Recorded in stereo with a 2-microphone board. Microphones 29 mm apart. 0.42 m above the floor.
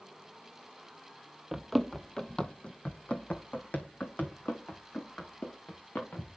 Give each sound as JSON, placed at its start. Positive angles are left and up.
{"t": 1.5, "sound": "running footsteps", "side_deg": -10, "distance_m": 0.8}